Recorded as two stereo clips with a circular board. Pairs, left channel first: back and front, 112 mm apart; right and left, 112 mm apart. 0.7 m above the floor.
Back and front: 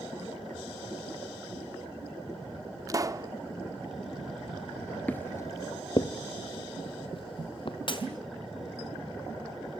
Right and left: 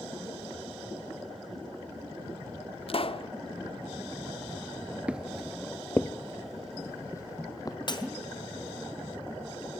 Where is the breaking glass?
140° right, 2.5 m.